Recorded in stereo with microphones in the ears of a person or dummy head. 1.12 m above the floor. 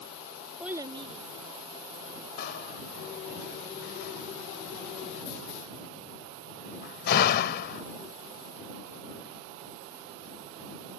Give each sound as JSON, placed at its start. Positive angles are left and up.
{"t": 0.6, "sound": "a child speaking", "side_deg": 0}
{"t": 2.4, "sound": "a door slam", "side_deg": 65}